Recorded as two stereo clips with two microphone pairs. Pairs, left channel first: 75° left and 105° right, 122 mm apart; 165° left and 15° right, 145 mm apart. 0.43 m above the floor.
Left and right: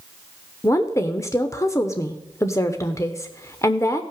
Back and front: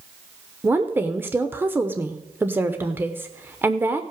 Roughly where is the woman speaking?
Ahead left.